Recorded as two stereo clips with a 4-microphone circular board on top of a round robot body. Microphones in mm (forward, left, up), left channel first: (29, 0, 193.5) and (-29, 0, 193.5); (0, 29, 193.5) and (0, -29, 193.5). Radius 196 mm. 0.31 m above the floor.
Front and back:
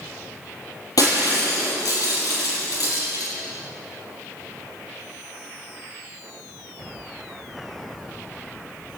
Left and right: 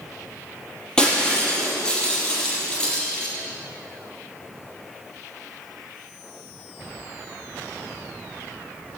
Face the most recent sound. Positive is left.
turn(degrees=15)